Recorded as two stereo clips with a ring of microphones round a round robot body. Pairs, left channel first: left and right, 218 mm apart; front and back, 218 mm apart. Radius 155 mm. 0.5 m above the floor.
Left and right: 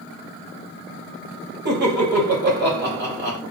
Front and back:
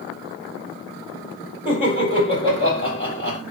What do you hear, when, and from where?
1.6 s laughter: 125° right, 2 m